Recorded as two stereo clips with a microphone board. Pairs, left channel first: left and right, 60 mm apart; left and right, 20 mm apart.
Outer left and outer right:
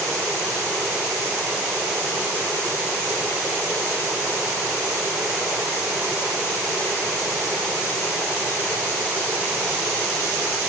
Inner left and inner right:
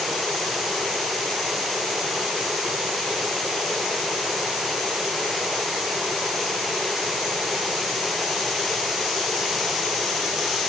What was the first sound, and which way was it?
Only background noise.